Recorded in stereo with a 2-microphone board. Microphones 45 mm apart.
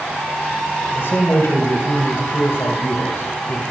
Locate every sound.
0.9 s a man speaking: 60° left (ahead or behind), 3.5 m